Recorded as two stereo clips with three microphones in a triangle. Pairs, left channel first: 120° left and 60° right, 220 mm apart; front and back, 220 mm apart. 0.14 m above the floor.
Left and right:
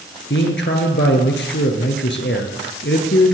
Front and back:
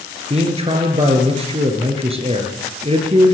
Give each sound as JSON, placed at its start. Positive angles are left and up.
{"t": 0.3, "sound": "a man speaking", "azimuth_deg": 125, "distance_m": 2.0}